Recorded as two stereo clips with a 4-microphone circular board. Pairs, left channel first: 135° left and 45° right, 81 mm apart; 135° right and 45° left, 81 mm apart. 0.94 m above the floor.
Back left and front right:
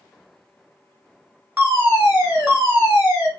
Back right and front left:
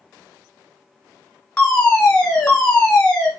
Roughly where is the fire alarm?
Ahead right.